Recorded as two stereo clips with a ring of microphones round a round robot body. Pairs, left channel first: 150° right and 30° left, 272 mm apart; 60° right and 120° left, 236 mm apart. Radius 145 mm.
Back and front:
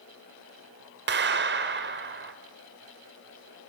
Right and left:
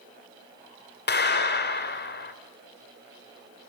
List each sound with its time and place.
1.1 s a clap: 20° right, 2 m